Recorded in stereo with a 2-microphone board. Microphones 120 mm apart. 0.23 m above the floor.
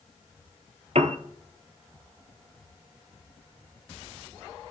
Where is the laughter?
No laughter in this recording.